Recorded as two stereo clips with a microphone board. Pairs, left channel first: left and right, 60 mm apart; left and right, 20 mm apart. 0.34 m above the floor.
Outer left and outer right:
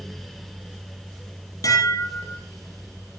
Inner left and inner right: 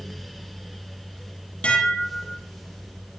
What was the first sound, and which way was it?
Dishes clattering, 70° left (ahead or behind).